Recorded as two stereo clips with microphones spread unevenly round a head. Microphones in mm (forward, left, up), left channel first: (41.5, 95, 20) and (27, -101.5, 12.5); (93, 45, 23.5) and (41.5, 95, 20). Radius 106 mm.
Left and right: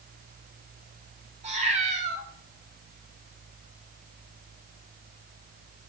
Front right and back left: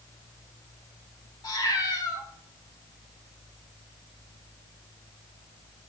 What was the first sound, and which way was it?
A cat meowing, 40° right.